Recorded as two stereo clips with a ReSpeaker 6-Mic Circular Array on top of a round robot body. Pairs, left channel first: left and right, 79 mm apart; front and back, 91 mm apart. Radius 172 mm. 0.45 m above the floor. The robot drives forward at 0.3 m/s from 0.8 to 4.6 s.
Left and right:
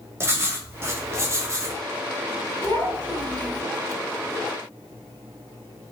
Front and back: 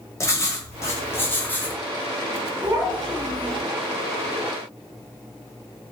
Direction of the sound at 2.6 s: 140° left.